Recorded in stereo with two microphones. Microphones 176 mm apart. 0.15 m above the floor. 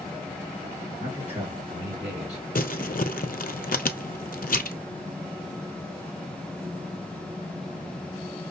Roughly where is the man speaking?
Right.